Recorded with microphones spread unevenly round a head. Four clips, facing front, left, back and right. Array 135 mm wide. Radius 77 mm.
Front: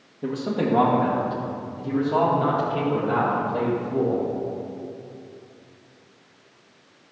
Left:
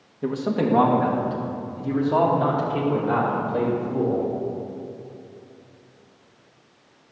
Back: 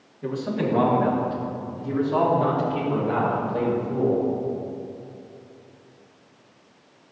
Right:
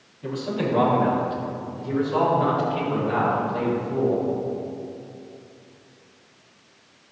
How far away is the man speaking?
About 1.3 m.